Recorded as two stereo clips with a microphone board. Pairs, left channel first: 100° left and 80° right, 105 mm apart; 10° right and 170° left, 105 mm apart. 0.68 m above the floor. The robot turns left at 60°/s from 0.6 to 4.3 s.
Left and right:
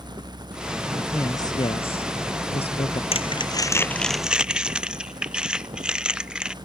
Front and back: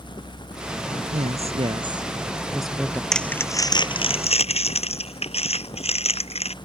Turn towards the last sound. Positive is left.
turn(degrees=5)